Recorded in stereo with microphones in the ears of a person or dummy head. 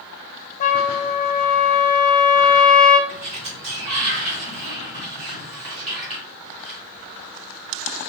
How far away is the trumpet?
About 0.5 m.